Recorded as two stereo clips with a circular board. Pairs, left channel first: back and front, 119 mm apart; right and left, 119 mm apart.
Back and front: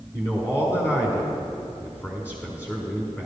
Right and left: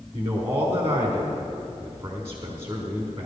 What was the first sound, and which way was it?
A man speaking, 130° left.